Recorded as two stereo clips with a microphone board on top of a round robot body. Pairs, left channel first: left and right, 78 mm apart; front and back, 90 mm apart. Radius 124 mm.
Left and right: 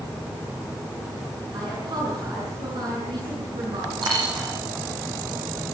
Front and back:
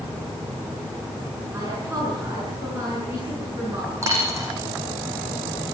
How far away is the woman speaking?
About 8 m.